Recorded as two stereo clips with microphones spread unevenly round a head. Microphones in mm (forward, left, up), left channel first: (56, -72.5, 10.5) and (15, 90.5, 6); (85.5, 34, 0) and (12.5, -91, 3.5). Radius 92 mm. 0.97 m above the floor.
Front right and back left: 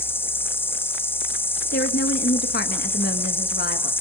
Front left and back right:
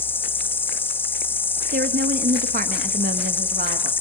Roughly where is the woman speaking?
Right.